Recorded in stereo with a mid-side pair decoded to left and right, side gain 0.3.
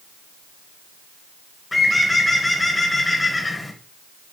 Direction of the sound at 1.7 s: 25° left.